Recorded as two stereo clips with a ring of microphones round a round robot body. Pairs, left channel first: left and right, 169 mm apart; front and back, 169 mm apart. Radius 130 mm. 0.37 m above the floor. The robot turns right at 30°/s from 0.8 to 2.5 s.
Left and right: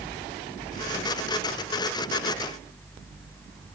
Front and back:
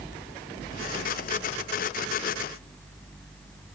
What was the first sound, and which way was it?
Only background noise.